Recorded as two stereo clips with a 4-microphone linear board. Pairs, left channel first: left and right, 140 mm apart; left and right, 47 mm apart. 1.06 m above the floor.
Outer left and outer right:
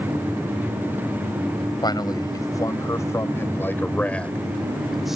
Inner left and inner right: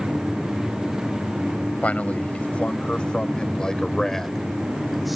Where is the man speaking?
30° left (ahead or behind); by 5.2 s 5° right (ahead or behind).